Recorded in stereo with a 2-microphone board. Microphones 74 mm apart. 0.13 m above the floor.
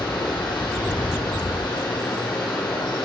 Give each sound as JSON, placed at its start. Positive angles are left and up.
{"t": 0.0, "sound": "running water", "side_deg": 70, "distance_m": 4.0}